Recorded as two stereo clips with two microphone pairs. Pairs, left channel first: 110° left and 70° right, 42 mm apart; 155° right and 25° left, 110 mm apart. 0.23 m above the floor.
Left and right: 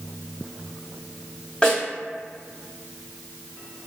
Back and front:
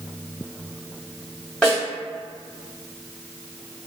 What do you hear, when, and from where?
1.6 s a snare drum: 140° left, 1.5 m